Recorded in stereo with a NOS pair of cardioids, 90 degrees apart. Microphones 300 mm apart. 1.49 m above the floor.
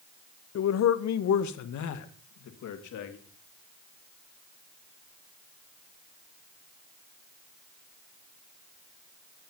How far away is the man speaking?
About 1.2 m.